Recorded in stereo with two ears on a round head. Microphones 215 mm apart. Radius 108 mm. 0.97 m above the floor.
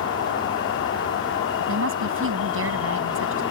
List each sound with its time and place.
0.0 s an insect: 50° left (ahead or behind)
1.6 s a woman speaking: 55° right (ahead or behind)